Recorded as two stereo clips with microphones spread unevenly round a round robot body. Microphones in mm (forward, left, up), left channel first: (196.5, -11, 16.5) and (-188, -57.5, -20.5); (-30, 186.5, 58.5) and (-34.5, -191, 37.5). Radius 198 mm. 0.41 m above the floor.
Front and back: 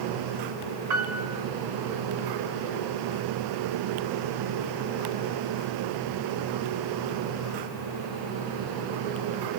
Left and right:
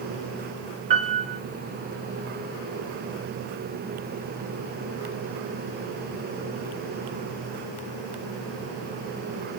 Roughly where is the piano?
Behind right.